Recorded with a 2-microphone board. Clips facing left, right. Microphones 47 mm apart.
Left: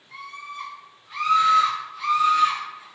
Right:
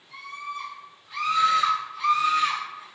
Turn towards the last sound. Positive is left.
turn(degrees=-30)  # may be behind; listen again after turning